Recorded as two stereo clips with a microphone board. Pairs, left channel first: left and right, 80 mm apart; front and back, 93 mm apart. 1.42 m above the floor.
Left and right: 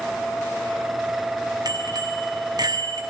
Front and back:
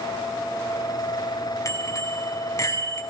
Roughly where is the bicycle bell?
Ahead right.